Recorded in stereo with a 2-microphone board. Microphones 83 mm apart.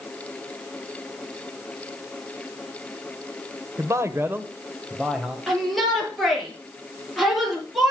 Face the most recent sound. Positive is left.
turn(degrees=0)  # may be behind; listen again after turning